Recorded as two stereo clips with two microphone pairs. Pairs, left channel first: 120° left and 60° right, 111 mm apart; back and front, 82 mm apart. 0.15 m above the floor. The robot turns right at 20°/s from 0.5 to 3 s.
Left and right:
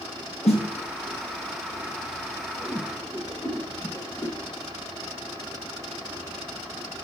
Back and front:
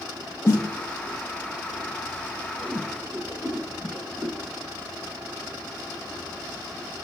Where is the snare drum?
120° left, 1.6 m; by 0.6 s 125° left, 1.6 m.